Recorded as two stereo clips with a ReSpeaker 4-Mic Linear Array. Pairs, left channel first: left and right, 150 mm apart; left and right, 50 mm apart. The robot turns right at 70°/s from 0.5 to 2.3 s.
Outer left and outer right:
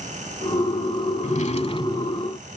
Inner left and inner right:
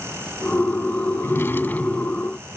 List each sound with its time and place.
1.2 s a drawer: 95° left; by 2.3 s 170° left